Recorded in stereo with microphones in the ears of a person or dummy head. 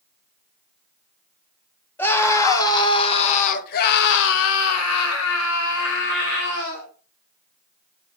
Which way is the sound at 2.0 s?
10° left (ahead or behind).